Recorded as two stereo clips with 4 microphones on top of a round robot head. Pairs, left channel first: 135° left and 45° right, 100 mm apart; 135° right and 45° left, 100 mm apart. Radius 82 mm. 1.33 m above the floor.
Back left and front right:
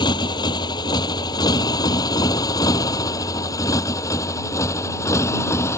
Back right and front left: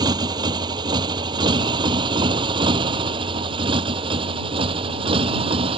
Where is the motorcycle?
90° left; by 5.8 s 75° left.